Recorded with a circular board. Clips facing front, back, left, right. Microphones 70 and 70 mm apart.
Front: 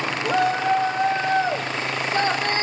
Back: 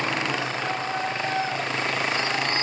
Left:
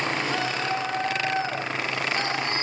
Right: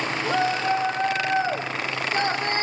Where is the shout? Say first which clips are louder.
Front 7 dB, right 4 dB; 35° right, 6 m; by 2.6 s 45° right, 4 m.